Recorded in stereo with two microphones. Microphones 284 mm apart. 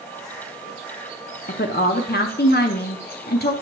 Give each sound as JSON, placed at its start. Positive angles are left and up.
{"t": 1.5, "sound": "a woman speaking", "side_deg": 35, "distance_m": 0.6}